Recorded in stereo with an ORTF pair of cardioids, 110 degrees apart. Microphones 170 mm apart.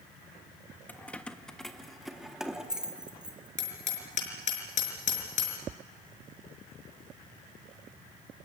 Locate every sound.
0.9 s keys jangling: 10° left, 1.3 m; by 3.5 s 5° right, 2.5 m
3.6 s hammering: 45° left, 5 m